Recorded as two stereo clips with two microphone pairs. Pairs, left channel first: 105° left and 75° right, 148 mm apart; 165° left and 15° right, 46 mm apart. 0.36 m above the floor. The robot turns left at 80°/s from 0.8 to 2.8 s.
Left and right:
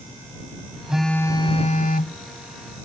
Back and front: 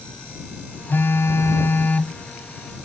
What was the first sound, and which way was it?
A phone buzzing, 155° right.